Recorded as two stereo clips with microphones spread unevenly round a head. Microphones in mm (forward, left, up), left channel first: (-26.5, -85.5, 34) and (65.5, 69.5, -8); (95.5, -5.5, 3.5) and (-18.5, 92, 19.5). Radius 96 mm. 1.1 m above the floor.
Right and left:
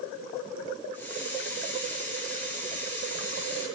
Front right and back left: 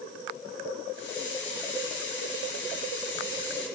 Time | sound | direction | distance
0.9 | a hiss | 40° right | 7 m